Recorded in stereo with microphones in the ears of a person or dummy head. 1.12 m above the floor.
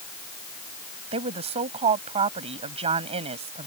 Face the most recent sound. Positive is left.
turn(degrees=-35)  # may be behind; listen again after turning